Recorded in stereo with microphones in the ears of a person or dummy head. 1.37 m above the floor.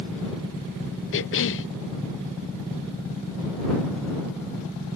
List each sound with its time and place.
1.1 s a cough: 55° left (ahead or behind)